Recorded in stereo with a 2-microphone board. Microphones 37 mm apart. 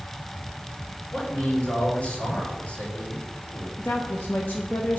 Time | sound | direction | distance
1.1 | a man speaking | 35° left (ahead or behind) | 3 m
3.8 | a woman speaking | 60° left (ahead or behind) | 0.8 m